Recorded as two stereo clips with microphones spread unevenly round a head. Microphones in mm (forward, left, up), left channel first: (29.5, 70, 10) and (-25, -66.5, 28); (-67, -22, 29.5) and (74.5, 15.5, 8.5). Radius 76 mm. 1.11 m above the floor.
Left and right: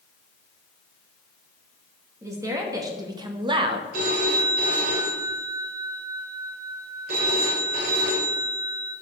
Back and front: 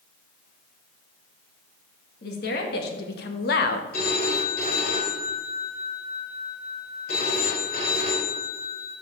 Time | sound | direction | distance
2.2 | a woman speaking | 175° left | 2.5 m
3.9 | a phone ringing | 140° right | 3 m